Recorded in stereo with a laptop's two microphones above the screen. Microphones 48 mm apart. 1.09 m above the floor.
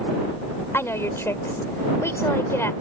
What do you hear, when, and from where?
0.7 s a woman speaking: 60° left (ahead or behind)